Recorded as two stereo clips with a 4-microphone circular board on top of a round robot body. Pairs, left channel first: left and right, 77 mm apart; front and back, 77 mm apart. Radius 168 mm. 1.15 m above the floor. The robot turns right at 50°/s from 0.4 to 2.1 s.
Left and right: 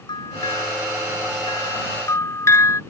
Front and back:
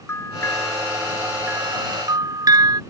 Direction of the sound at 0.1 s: 55° left.